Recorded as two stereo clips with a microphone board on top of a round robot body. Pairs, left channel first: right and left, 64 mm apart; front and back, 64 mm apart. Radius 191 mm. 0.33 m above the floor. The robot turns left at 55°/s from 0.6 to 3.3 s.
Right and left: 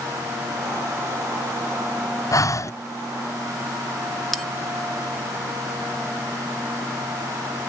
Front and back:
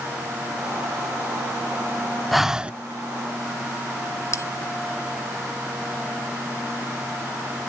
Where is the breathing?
90° right, 0.5 m; by 2.7 s 115° right, 0.5 m.